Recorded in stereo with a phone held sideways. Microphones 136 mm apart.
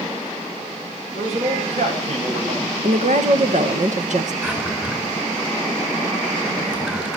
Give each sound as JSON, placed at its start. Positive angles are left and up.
{"t": 1.1, "sound": "a man speaking", "side_deg": -55, "distance_m": 8.0}
{"t": 2.8, "sound": "a woman speaking", "side_deg": -60, "distance_m": 1.6}
{"t": 4.4, "sound": "a drawer", "side_deg": -10, "distance_m": 4.0}